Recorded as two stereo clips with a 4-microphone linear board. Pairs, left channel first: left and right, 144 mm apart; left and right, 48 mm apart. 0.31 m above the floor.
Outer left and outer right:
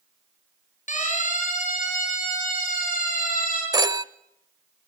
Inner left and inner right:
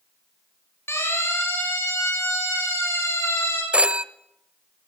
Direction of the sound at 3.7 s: 25° right (ahead or behind).